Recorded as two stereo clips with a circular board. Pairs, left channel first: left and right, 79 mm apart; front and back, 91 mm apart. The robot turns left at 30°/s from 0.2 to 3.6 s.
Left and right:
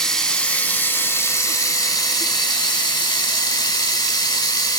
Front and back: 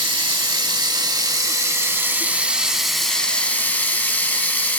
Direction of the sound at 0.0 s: 170° left.